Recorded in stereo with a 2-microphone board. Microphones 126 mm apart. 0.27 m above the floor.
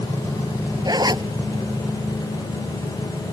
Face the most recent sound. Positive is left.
turn(degrees=-35)  # may be behind; listen again after turning